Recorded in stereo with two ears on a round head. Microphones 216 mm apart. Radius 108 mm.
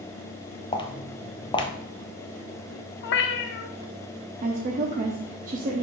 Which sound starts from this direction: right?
A woman speaking, at 4.4 s.